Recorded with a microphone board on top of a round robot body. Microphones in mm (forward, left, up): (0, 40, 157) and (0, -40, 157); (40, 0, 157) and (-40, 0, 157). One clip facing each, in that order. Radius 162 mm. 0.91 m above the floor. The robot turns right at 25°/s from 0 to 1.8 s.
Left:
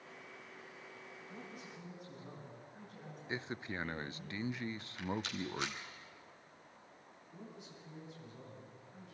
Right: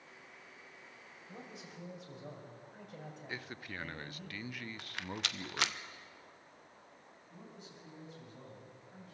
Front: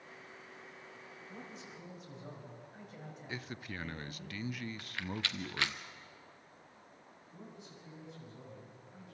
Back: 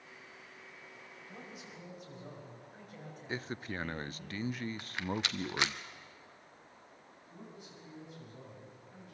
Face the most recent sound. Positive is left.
turn(degrees=-140)